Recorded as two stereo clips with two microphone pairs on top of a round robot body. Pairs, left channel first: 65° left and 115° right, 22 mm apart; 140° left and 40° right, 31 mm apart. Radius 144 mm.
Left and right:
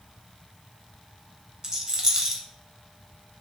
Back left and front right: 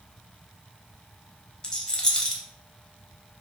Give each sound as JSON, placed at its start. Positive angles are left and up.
{"t": 1.6, "sound": "a rattle", "azimuth_deg": -170, "distance_m": 0.9}